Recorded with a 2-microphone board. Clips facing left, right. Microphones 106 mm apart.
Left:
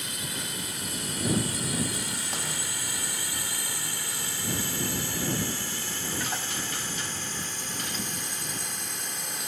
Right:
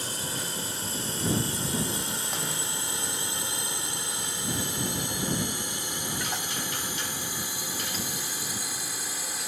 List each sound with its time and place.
0.0 s a drone: 35° right (ahead or behind); by 9.5 s 5° right (ahead or behind)